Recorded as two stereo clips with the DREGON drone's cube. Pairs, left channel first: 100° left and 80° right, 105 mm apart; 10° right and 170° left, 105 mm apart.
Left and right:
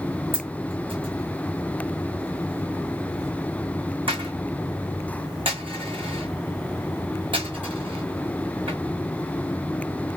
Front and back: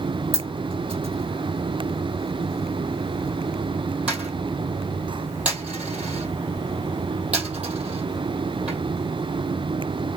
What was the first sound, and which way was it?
A dropped coin, 115° right.